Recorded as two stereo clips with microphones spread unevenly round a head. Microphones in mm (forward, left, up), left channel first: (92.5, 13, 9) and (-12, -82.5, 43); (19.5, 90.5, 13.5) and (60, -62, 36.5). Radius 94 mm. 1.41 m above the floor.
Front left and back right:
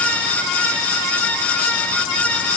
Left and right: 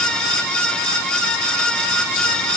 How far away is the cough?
I don't hear a cough.